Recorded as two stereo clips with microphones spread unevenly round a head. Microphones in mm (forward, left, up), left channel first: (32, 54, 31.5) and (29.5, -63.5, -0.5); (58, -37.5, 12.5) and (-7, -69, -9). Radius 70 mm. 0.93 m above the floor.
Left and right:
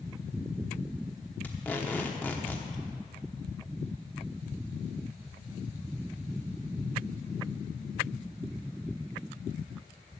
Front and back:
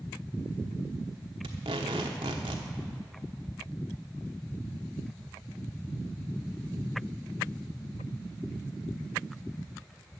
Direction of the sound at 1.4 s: 165° left.